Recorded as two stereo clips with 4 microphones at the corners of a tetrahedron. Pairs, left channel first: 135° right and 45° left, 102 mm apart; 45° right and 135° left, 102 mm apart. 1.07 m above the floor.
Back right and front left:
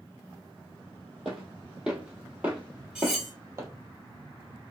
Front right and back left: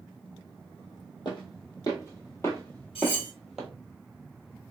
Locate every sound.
1.2 s footsteps: 40° right, 1.5 m; by 3.7 s 50° left, 1.2 m
3.0 s cutlery clinking: 40° right, 1.4 m